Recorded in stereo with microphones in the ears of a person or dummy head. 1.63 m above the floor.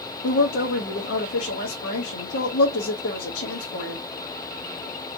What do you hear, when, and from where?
0.2 s a woman speaking: 60° left (ahead or behind), 0.9 m